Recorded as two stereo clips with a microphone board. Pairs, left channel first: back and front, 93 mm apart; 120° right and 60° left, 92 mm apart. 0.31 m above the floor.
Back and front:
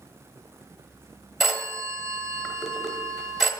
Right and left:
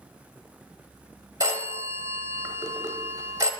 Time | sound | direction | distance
1.4 | a phone ringing | 90° left | 0.8 m